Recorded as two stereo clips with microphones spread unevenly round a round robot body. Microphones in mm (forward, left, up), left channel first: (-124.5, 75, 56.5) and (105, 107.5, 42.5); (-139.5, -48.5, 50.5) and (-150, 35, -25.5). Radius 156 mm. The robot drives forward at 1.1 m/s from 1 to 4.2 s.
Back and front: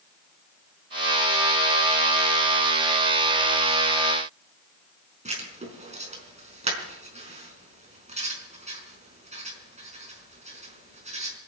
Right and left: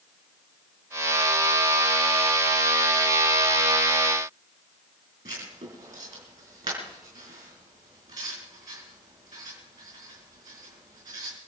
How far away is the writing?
About 4.5 m.